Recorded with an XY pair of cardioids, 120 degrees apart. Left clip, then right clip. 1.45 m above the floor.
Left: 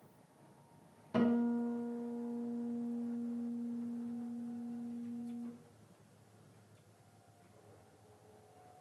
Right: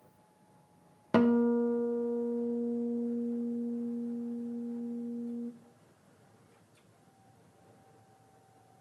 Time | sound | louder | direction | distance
1.1 | a guitar | right 8 dB | 70° right | 0.6 m